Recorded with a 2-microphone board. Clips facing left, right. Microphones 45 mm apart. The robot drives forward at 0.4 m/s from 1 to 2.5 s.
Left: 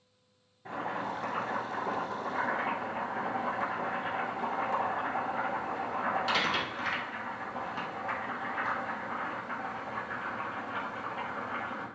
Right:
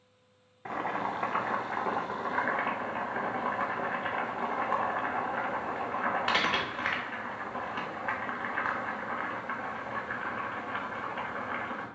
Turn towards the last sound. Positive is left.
turn(degrees=-35)  # may be behind; listen again after turning